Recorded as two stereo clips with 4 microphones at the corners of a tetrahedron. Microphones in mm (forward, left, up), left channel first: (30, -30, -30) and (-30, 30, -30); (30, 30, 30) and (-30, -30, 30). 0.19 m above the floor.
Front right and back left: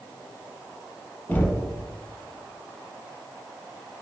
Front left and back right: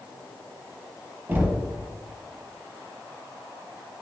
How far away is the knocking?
About 0.9 m.